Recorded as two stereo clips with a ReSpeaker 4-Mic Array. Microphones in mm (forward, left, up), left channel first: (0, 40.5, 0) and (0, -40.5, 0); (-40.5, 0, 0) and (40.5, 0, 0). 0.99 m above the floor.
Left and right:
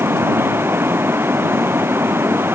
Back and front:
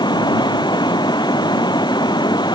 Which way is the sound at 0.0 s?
155° right.